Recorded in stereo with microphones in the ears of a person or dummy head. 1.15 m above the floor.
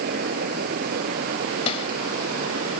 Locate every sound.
0.0 s a fan: 55° right (ahead or behind)
1.7 s a snare drum: 35° left (ahead or behind)